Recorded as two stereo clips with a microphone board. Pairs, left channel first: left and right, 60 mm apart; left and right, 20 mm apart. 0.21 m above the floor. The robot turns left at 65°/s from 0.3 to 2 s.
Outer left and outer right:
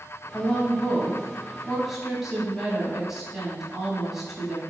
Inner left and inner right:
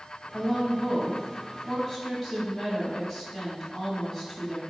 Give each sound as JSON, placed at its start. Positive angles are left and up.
{"t": 0.3, "sound": "a woman speaking", "side_deg": 30, "distance_m": 1.1}